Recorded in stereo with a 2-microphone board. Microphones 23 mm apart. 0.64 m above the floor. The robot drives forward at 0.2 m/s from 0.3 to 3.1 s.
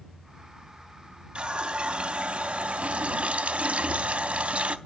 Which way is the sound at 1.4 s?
45° right (ahead or behind).